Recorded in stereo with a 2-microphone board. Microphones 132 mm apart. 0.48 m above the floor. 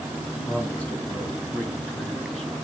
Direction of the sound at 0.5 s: 10° left (ahead or behind).